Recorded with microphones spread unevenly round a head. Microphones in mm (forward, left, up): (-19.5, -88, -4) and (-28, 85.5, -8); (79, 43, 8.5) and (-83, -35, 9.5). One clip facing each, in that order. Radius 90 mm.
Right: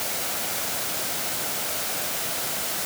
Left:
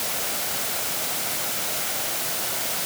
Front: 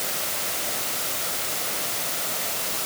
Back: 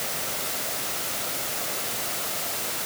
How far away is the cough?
I don't hear a cough.